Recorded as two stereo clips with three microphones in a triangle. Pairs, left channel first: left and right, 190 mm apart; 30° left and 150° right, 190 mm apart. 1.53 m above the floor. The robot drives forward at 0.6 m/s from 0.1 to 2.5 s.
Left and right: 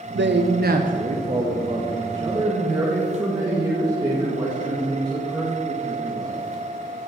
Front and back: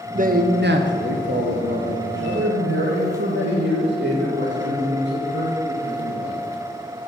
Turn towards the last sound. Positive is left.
turn(degrees=-160)